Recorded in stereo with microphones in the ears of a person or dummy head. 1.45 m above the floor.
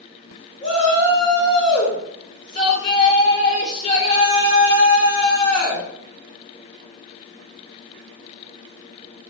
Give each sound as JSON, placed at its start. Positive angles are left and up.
{"t": 0.6, "sound": "a shout", "side_deg": 35, "distance_m": 1.0}